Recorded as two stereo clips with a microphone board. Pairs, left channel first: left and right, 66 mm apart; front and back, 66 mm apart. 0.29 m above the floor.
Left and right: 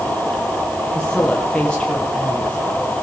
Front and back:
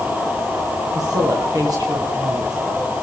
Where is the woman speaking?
170° left, 9.5 m; by 2.9 s 160° left, 8.5 m.